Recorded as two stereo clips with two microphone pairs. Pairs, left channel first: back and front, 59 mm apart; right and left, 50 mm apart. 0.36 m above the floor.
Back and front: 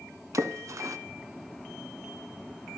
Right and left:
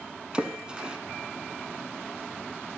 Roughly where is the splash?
Ahead left.